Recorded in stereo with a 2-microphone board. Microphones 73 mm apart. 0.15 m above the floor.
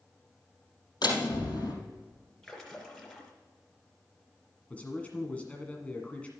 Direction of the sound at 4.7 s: 20° left (ahead or behind).